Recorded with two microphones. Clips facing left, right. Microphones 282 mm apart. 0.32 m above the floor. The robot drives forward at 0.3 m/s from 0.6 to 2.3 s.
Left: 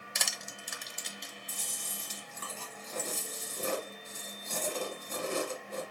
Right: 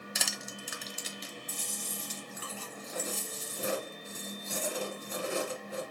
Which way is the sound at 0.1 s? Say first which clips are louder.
Even; 5° right (ahead or behind).